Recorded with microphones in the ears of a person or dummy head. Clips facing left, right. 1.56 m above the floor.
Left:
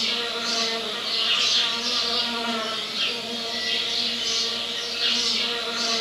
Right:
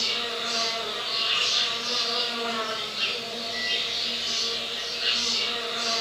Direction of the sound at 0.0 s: 65° left (ahead or behind).